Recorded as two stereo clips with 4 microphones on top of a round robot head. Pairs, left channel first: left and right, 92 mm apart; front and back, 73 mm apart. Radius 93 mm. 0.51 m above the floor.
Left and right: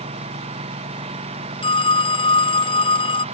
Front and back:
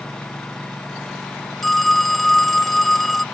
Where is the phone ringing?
85° left.